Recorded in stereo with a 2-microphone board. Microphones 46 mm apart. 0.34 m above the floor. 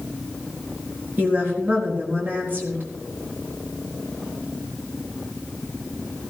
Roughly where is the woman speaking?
Right.